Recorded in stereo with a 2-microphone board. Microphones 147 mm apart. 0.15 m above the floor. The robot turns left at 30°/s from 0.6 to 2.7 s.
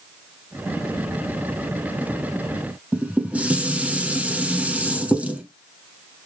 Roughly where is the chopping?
I don't hear chopping.